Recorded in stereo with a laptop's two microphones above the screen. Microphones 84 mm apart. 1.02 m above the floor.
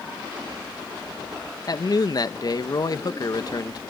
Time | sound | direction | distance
1.7 | a man speaking | 45° left (ahead or behind) | 0.8 m